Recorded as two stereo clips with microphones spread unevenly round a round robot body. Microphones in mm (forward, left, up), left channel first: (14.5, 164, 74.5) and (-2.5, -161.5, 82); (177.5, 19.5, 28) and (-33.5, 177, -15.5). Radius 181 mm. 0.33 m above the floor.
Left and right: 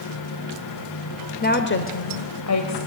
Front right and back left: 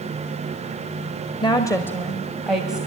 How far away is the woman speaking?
About 1.5 m.